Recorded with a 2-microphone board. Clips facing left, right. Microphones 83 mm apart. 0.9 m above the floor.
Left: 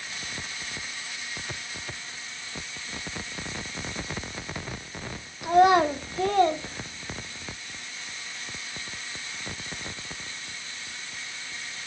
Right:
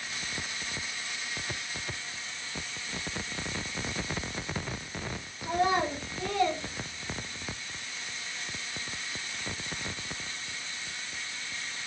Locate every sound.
5.4 s a child speaking: 65° left (ahead or behind), 0.6 m; by 7.5 s 10° left (ahead or behind), 1.0 m